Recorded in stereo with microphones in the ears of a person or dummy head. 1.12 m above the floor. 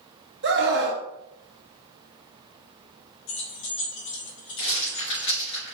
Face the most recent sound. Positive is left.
turn(degrees=65)  # may be behind; listen again after turning